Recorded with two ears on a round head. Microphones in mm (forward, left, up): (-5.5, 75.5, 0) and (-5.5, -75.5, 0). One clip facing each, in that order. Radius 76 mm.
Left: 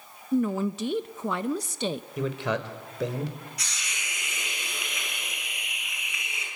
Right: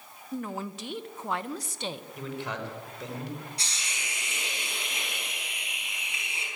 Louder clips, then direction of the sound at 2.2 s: Left 8 dB; 60° left (ahead or behind).